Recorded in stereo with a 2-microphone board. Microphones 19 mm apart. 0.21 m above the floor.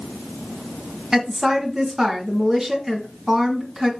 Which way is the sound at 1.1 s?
30° right (ahead or behind).